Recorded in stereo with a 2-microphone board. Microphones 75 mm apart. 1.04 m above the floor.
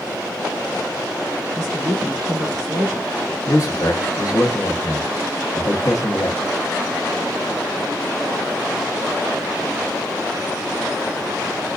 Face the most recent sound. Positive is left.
turn(degrees=50)  # may be behind; listen again after turning